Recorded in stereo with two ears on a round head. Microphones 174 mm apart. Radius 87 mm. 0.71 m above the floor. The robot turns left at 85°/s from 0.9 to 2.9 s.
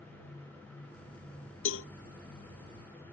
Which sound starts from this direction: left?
A cowbell, at 1.6 s.